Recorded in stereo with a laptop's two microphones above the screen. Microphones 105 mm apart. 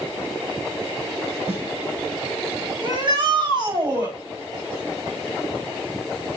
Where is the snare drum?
60° right (ahead or behind), 3.5 m.